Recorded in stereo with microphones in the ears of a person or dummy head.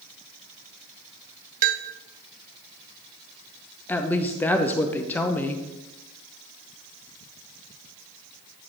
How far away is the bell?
About 0.6 m.